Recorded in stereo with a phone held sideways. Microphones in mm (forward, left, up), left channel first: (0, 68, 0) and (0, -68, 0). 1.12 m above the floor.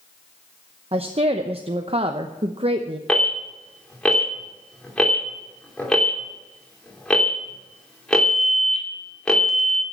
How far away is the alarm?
About 2.5 m.